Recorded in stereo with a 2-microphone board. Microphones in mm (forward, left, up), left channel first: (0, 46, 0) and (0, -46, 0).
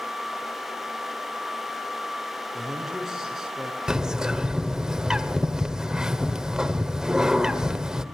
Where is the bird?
10° right (ahead or behind), 1.3 m.